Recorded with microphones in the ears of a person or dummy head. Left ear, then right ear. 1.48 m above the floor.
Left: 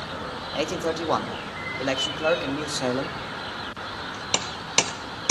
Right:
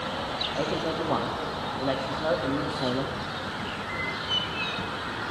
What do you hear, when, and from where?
0.5 s a man speaking: 80° left, 2.5 m